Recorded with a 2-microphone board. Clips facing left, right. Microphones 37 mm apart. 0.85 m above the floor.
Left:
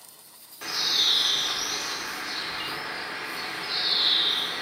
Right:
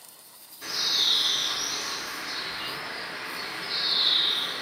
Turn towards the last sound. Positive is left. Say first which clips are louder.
# left 1 dB
turn(degrees=70)  # may be behind; listen again after turning